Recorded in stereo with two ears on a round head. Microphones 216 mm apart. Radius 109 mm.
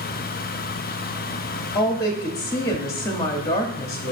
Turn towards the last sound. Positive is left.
turn(degrees=15)  # may be behind; listen again after turning